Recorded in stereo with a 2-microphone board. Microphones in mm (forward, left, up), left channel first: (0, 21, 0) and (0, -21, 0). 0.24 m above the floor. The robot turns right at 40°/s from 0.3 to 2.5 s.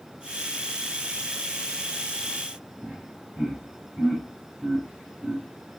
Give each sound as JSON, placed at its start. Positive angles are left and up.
{"t": 2.8, "sound": "laughter", "side_deg": -15, "distance_m": 1.6}